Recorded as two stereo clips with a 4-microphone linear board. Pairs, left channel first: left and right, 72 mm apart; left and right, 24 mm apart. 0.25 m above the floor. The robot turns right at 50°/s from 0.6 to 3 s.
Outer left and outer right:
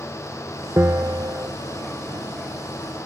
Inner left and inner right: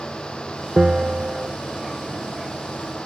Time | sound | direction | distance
0.8 | a bell | 145° right | ?